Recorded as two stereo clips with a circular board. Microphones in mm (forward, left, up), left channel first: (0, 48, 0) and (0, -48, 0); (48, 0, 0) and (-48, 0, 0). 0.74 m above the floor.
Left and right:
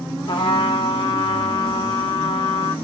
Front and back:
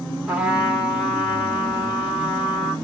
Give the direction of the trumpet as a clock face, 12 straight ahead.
9 o'clock.